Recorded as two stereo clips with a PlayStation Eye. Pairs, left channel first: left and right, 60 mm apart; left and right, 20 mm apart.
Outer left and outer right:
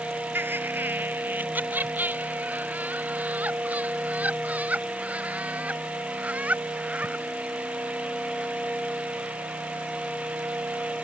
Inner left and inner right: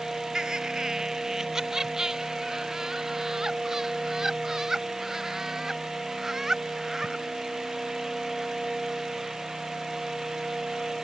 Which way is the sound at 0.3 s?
35° right (ahead or behind).